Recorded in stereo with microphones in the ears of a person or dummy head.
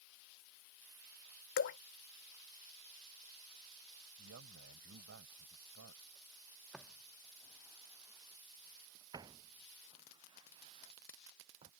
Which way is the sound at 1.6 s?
60° left (ahead or behind).